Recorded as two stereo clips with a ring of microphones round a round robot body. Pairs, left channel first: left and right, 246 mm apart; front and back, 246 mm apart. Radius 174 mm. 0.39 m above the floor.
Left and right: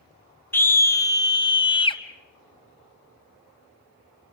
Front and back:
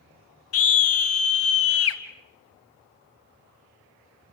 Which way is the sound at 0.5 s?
10° left.